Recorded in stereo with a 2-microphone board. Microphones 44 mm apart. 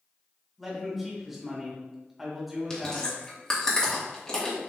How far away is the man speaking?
About 1.7 m.